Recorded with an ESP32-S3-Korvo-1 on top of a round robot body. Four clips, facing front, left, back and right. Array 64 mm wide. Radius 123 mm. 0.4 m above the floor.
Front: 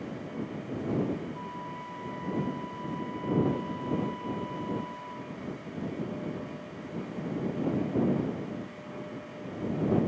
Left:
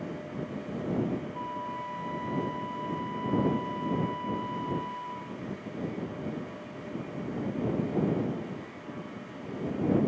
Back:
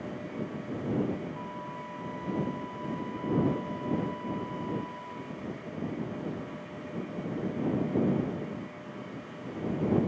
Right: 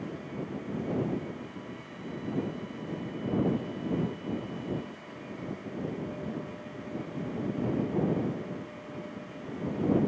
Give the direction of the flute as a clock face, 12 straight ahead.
9 o'clock.